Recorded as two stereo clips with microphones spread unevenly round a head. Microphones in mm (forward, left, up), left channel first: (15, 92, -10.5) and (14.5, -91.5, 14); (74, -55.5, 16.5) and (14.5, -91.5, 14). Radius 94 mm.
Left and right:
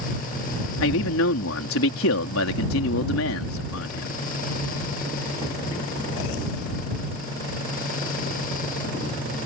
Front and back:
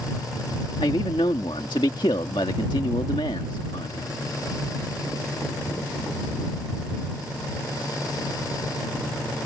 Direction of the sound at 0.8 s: 85° left.